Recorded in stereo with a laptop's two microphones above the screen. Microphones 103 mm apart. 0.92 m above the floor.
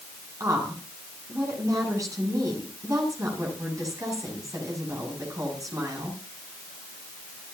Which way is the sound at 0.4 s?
35° right (ahead or behind).